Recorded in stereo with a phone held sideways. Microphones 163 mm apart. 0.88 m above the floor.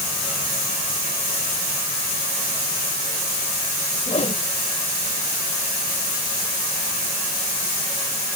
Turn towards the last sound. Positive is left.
turn(degrees=40)  # may be behind; listen again after turning